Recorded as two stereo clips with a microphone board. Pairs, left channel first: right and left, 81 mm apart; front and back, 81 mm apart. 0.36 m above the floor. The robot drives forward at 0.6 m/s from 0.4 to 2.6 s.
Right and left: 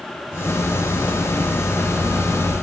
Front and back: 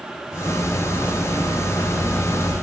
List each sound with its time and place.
Only background noise.